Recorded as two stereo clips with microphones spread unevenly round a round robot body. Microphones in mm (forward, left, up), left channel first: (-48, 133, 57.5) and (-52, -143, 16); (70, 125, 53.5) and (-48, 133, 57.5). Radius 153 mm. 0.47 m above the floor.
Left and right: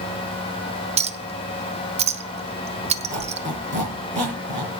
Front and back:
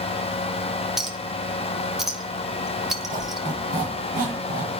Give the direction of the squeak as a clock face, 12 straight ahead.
5 o'clock.